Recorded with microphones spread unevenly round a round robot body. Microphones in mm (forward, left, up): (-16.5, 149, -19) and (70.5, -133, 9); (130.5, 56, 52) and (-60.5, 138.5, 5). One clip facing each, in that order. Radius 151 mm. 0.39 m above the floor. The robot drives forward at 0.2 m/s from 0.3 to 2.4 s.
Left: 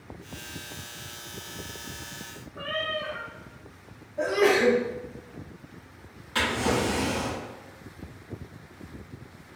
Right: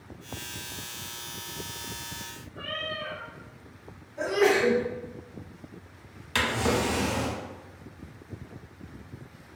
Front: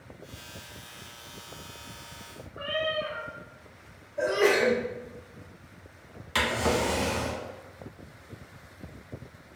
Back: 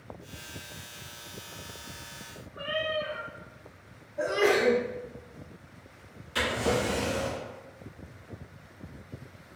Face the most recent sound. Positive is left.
turn(degrees=-40)